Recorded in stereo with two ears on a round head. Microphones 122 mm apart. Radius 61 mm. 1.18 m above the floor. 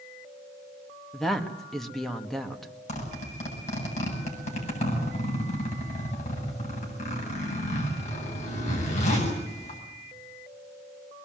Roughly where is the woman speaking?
Centre.